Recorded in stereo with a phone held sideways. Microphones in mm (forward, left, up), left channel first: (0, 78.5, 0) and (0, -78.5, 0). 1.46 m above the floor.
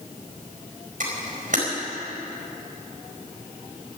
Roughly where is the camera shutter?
Right.